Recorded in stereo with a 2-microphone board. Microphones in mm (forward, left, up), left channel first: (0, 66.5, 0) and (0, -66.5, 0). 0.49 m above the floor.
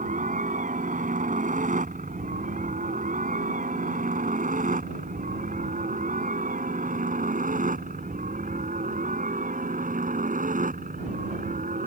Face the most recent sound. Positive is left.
turn(degrees=-70)  # may be behind; listen again after turning